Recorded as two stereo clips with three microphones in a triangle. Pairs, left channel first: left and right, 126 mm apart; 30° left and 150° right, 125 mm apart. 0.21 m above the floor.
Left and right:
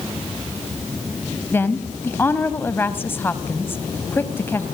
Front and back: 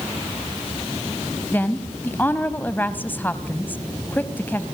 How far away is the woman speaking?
About 1.1 m.